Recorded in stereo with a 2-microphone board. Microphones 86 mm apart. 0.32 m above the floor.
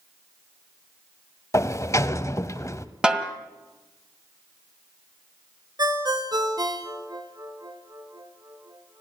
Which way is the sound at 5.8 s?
50° right (ahead or behind).